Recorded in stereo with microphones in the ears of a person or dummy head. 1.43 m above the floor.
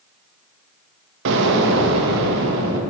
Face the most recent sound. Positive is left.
turn(degrees=-70)  # may be behind; listen again after turning